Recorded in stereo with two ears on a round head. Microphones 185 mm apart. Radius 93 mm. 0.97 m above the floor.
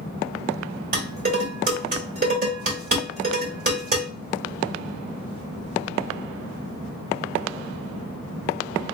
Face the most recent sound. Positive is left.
turn(degrees=-45)  # may be behind; listen again after turning